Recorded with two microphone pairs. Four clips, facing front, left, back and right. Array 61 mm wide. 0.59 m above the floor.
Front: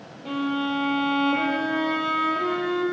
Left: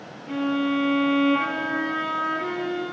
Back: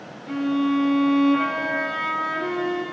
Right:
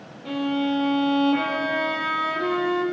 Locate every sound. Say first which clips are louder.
0.2 s a violin: even, back 3 dB; 55° right, 6 m